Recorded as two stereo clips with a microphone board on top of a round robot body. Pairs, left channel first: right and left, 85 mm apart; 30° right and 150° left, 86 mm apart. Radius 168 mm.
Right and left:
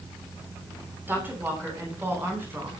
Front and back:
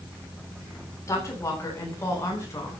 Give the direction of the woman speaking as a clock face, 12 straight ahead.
11 o'clock.